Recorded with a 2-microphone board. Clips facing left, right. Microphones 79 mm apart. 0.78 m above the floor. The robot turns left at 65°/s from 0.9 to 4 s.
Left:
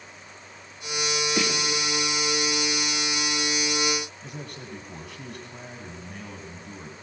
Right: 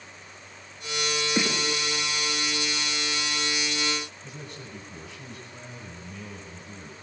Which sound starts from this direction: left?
A man speaking, at 4.2 s.